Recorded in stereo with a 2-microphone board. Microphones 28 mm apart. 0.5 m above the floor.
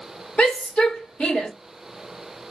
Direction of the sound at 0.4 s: 55° left (ahead or behind).